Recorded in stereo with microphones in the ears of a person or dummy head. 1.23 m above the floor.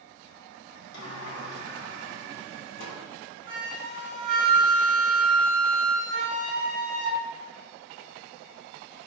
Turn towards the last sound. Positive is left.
turn(degrees=-50)  # may be behind; listen again after turning